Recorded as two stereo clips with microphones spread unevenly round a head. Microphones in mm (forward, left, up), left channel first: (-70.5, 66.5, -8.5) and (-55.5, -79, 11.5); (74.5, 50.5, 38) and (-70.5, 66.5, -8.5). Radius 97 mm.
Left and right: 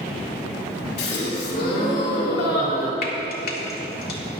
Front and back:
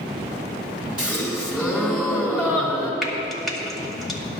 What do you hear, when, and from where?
1.0 s a gasp: 90° left, 3 m
3.0 s frying: 90° left, 2 m